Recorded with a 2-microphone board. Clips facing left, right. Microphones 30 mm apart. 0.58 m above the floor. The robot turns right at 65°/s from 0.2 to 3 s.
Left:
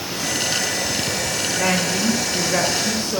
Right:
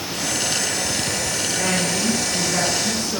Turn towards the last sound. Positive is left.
turn(degrees=120)